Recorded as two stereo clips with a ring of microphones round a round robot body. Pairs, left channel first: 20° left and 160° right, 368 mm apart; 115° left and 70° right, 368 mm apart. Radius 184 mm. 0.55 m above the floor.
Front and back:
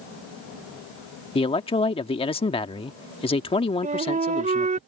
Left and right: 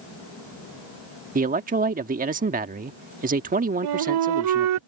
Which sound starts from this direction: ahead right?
A man speaking, at 1.4 s.